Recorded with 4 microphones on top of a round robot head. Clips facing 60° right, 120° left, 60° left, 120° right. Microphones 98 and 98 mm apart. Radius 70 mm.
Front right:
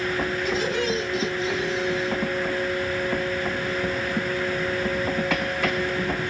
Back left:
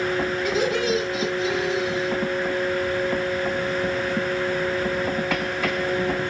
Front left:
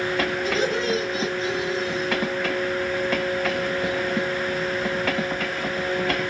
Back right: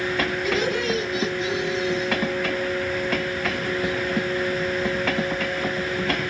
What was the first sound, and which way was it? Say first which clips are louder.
Laughter: back left 3 dB, back right 1 dB; 120° left.